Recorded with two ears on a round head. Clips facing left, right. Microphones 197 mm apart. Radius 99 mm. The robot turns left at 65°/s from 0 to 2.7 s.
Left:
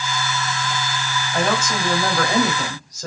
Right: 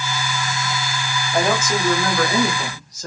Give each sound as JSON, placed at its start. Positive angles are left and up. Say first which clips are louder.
{"t": 1.3, "sound": "a woman speaking", "louder": "right 2 dB", "azimuth_deg": -155, "distance_m": 2.5}